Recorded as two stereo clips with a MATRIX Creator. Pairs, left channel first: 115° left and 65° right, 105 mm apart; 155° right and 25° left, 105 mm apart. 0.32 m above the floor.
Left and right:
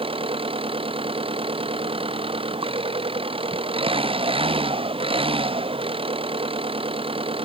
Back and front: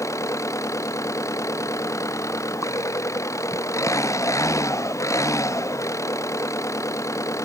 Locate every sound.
0.0 s an engine running: 95° right